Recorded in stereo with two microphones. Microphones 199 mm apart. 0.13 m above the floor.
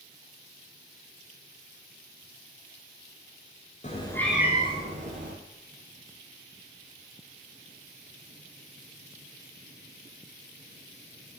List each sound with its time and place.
3.8 s a cat meowing: 35° left (ahead or behind), 0.6 m; by 5.3 s 50° right (ahead or behind), 1.1 m